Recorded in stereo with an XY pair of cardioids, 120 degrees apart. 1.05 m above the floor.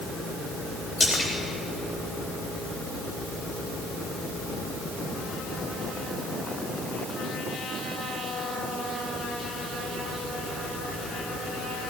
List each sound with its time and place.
1.0 s a splash: 30° left, 4 m